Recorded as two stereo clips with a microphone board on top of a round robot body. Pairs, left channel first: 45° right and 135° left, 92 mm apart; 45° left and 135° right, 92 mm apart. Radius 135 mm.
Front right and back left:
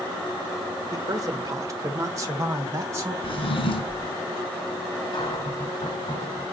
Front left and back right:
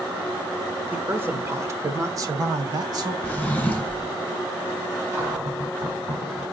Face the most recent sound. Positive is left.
turn(degrees=-80)